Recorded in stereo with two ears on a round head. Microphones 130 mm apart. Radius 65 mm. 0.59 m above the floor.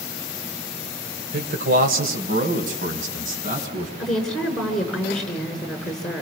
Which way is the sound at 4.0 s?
5° left (ahead or behind).